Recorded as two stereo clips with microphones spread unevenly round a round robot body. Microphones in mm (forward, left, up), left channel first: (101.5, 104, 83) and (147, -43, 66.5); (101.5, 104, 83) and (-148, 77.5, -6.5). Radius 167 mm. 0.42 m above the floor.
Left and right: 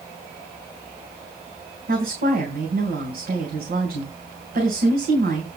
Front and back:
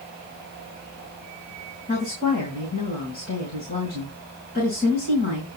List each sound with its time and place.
1.9 s a woman speaking: 65° right, 3.5 m